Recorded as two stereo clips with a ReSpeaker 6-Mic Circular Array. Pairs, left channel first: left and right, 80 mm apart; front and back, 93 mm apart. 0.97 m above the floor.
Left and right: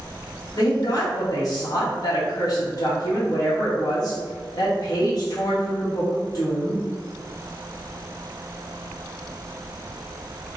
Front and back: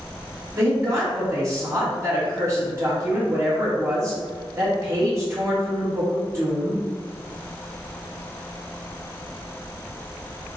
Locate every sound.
0.6 s a woman speaking: 125° left, 1.3 m